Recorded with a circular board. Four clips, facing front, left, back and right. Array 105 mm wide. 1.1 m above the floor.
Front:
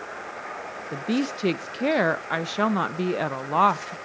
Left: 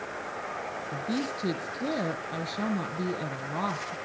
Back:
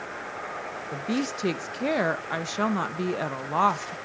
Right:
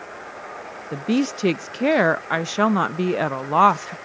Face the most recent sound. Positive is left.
turn(degrees=-80)